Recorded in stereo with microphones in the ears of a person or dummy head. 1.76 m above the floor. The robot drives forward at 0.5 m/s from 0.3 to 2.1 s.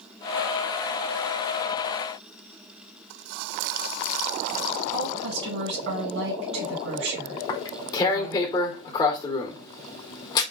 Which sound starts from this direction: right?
A woman speaking, at 4.9 s.